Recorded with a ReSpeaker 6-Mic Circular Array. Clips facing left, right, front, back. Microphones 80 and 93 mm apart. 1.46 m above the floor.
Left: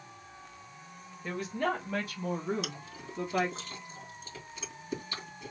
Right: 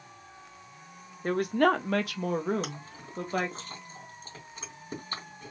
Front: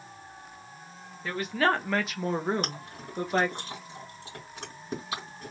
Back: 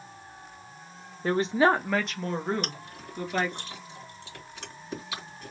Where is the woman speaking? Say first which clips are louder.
Right 8 dB, back 4 dB; 130° right, 0.8 m; by 3.6 s 50° right, 1.8 m.